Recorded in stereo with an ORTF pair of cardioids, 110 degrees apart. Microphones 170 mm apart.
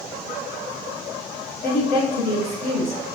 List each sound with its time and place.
1.6 s a woman speaking: 70° left, 1.2 m